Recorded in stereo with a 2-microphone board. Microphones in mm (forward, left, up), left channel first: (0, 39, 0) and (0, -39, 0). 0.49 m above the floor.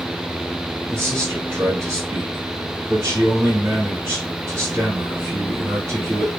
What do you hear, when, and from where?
0.9 s a man speaking: 35° right (ahead or behind), 1.5 m